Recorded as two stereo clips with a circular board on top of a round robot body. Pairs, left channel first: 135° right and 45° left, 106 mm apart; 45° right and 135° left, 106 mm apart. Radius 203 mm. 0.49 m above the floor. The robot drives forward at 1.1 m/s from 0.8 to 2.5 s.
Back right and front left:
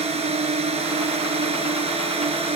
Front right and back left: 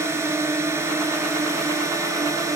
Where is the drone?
70° left; by 2.6 s 75° left.